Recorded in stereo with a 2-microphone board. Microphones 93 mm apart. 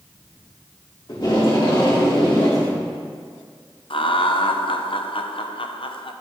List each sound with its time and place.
1.1 s tape being pulled: 45° left (ahead or behind), 2 m
3.9 s laughter: 65° left (ahead or behind), 0.8 m